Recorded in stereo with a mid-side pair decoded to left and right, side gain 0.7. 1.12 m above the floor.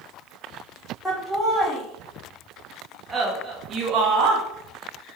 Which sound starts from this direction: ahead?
Laughter, at 1.1 s.